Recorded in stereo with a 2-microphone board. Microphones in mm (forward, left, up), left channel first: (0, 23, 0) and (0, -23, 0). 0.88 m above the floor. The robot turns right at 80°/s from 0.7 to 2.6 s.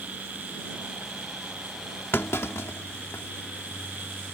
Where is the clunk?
60° left (ahead or behind); by 3.2 s 80° left.